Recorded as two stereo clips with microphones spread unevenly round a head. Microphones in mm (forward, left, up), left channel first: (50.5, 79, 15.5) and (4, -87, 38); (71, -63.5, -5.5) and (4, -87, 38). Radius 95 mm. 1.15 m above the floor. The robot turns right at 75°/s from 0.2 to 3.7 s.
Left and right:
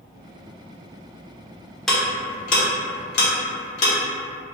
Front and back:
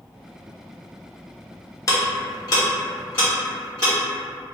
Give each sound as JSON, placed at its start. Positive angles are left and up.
{"t": 1.9, "sound": "ticking", "azimuth_deg": -10, "distance_m": 0.9}